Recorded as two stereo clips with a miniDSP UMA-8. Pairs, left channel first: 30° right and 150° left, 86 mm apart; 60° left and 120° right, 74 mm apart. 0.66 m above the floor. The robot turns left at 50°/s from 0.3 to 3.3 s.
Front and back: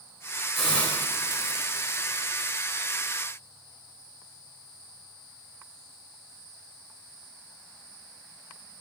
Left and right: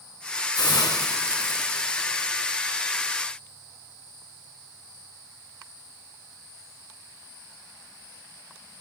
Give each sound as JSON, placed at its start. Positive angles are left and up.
{"t": 0.6, "sound": "a hiss", "azimuth_deg": 55, "distance_m": 3.0}